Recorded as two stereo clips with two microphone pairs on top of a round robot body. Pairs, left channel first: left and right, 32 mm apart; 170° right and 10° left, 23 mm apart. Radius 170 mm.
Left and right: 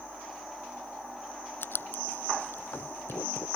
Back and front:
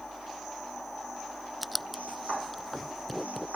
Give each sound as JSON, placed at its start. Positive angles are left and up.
{"t": 1.6, "sound": "writing", "azimuth_deg": 95}